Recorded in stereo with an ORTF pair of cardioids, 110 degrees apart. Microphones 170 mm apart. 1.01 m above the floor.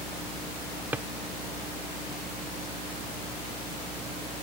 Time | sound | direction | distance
0.9 | a drawer | 10° right | ?